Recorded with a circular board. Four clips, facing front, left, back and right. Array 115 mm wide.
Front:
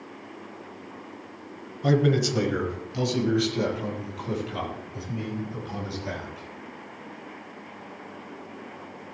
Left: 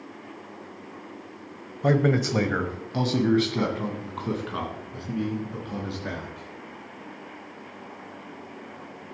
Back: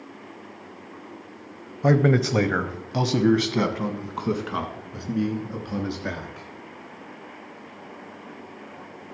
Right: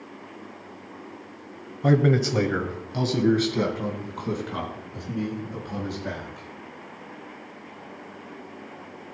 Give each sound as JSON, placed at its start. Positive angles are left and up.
{"t": 1.8, "sound": "a man speaking", "azimuth_deg": 170, "distance_m": 1.0}